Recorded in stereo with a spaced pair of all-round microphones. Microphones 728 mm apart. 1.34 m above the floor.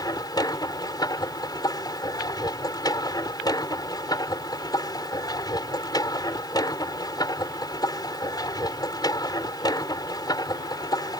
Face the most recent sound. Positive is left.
turn(degrees=5)  # may be behind; listen again after turning